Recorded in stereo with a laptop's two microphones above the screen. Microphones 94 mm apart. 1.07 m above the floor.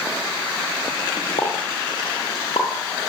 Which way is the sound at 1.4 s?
75° left (ahead or behind).